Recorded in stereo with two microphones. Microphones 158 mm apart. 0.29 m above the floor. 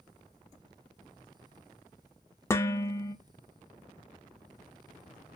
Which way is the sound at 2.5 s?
15° left (ahead or behind).